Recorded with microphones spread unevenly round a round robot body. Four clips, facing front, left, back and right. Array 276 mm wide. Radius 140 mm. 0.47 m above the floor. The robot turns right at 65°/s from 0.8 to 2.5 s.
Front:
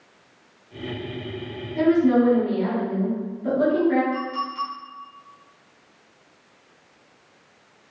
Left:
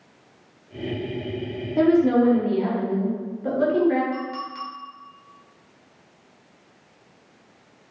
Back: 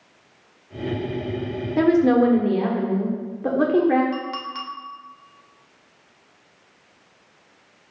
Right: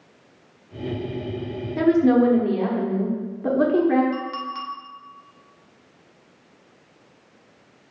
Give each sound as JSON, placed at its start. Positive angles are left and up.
{"t": 1.8, "sound": "a woman speaking", "azimuth_deg": 150, "distance_m": 1.0}
{"t": 4.1, "sound": "a clink", "azimuth_deg": 175, "distance_m": 1.3}